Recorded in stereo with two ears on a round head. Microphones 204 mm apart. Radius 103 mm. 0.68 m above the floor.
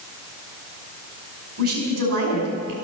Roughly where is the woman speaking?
Right.